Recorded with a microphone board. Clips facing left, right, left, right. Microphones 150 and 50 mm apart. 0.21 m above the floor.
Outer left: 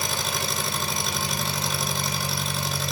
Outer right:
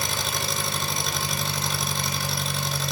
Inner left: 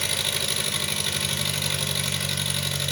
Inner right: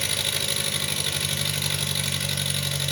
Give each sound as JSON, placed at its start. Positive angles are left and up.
{"t": 0.0, "sound": "an engine running", "side_deg": 0, "distance_m": 0.8}